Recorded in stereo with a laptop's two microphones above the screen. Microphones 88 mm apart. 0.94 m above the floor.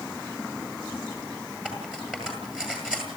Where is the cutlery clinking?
10° right (ahead or behind), 10 m.